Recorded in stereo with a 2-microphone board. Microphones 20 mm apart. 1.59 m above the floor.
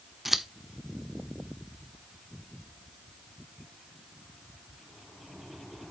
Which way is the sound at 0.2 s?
10° right (ahead or behind).